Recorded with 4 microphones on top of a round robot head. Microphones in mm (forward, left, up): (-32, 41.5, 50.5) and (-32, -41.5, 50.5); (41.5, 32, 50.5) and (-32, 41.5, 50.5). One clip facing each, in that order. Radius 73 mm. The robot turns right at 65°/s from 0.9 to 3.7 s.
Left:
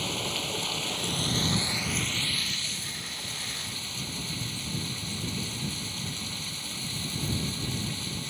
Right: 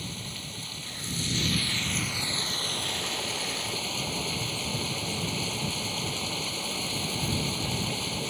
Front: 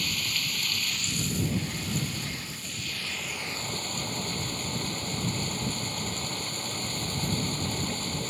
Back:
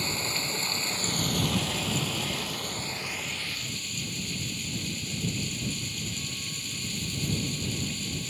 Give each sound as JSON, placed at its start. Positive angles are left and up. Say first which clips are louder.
{"t": 0.0, "sound": "running water", "louder": "left 7 dB, back 2 dB", "azimuth_deg": 110}